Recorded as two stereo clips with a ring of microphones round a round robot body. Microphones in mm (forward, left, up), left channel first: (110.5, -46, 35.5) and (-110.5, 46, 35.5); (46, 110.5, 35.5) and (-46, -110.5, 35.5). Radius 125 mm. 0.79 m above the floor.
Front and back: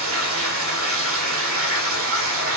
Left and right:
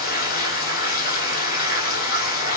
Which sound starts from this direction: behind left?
Running water, at 0.0 s.